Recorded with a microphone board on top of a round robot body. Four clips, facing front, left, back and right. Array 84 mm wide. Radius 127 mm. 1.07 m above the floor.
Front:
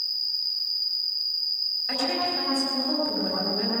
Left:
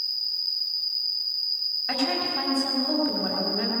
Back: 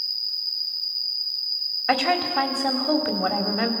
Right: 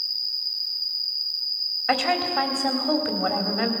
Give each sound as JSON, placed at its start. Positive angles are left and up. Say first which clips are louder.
{"t": 0.0, "sound": "an insect", "louder": "right 1 dB, even", "azimuth_deg": 150, "distance_m": 7.5}
{"t": 1.9, "sound": "a woman speaking", "louder": "right 5 dB, back 6 dB", "azimuth_deg": -150, "distance_m": 4.0}